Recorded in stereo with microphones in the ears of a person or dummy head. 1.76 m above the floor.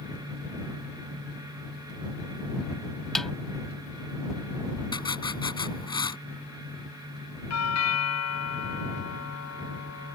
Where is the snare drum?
5° right (ahead or behind).